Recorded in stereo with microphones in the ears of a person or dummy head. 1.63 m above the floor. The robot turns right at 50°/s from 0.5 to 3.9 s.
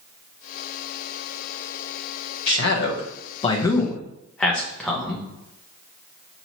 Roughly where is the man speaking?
Left.